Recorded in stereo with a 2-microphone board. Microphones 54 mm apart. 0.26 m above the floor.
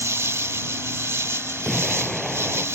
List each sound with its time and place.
0.0 s an insect: 65° right (ahead or behind)
1.6 s an explosion: centre (ahead or behind)